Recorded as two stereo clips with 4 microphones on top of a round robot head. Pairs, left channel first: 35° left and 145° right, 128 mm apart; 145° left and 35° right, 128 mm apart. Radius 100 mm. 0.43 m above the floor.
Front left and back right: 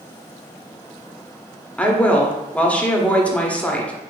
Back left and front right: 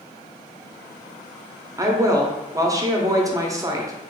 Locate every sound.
1.8 s a woman speaking: 35° right, 0.8 m